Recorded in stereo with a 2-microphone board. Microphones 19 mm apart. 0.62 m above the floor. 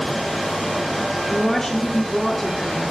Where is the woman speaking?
25° left (ahead or behind), 1.7 m.